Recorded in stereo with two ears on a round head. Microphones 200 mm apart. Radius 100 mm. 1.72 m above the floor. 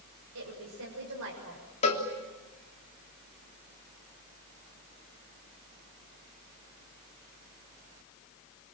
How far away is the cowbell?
About 3.5 m.